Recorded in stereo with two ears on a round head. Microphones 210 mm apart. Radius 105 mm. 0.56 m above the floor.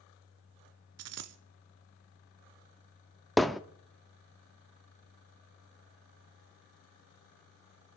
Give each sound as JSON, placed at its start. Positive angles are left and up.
{"t": 1.0, "sound": "a dropped coin", "side_deg": -70, "distance_m": 1.1}
{"t": 3.4, "sound": "hammering", "side_deg": 0, "distance_m": 0.5}